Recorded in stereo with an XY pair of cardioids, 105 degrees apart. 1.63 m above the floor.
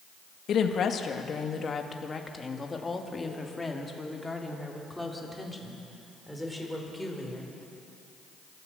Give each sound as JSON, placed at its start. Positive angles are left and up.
{"t": 0.5, "sound": "a woman speaking", "azimuth_deg": 60, "distance_m": 1.9}